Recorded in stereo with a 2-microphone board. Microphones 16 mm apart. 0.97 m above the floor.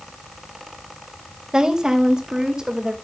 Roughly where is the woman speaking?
Right.